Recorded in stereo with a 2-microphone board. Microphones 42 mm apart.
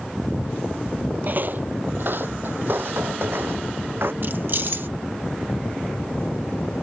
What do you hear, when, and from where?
1.2 s footsteps: 45° right (ahead or behind); by 4.1 s 60° right (ahead or behind)
4.2 s keys jangling: 55° right (ahead or behind)